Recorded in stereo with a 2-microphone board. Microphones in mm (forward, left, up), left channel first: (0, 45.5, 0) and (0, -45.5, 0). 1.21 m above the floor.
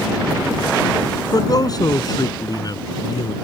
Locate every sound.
1.3 s a man speaking: 45° left (ahead or behind)